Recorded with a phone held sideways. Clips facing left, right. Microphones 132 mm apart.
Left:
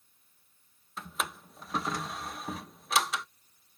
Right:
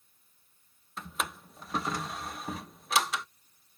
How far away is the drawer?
About 0.6 m.